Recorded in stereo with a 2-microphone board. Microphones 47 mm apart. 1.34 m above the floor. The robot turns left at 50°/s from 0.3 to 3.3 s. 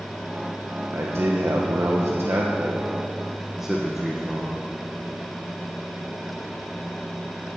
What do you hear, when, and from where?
0.9 s a man speaking: 55° right, 1.2 m; by 4.6 s 170° right, 1.2 m